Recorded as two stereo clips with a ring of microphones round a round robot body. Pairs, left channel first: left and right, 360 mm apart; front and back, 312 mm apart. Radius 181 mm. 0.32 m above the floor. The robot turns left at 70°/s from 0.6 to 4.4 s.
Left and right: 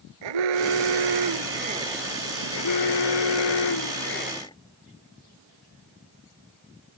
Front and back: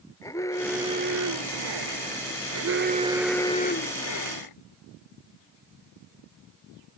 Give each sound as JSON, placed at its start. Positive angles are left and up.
{"t": 0.2, "sound": "an alarm", "azimuth_deg": -80}